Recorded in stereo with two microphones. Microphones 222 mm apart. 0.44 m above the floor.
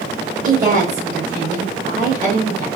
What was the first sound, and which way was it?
A woman speaking, 40° right (ahead or behind).